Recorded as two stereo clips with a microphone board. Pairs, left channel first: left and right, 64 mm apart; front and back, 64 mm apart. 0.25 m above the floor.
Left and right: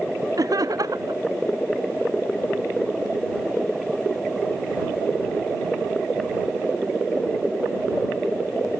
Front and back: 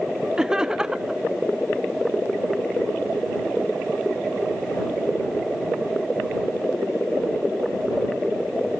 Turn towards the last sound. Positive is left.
turn(degrees=-100)